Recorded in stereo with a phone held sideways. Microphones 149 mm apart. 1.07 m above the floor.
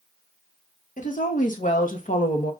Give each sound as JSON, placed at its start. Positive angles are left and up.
{"t": 1.0, "sound": "a woman speaking", "side_deg": 65, "distance_m": 2.0}